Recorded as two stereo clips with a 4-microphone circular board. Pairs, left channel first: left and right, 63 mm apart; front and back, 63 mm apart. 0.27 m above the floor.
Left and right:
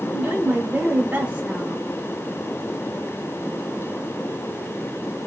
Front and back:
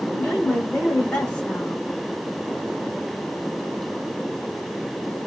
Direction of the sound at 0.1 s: 60° right.